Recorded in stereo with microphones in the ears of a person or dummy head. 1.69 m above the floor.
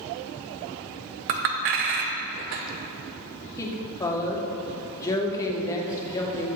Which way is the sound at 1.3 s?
45° right (ahead or behind).